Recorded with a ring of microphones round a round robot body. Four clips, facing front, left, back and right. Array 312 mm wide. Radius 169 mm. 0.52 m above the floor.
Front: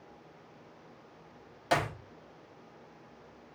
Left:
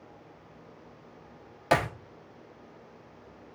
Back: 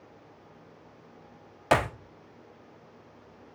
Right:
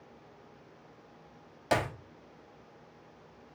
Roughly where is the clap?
Behind left.